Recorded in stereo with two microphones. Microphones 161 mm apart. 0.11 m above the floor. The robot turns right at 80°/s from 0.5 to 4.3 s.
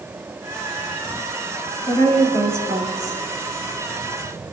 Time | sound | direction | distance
1.9 | a woman speaking | 145° left | 3 m